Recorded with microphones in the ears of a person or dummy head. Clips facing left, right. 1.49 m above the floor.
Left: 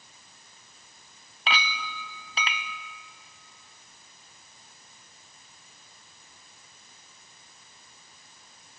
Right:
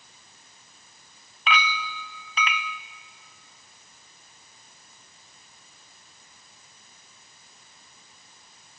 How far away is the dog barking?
I don't hear a dog barking.